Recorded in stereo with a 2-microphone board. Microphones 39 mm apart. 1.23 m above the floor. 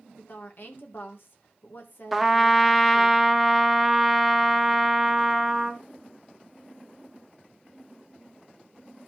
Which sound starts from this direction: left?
A woman speaking, at 0.2 s.